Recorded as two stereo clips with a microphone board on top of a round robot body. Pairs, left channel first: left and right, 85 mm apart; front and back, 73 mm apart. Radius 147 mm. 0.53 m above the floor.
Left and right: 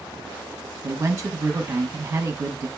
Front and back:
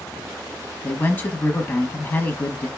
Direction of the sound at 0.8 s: 50° right.